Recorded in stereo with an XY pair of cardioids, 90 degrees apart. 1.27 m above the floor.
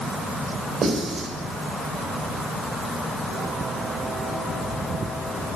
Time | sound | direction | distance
0.8 | writing | 55° right | 5.5 m